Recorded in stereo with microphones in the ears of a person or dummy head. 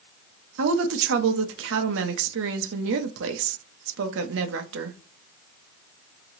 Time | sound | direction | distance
0.6 | a woman speaking | 70° right (ahead or behind) | 0.8 m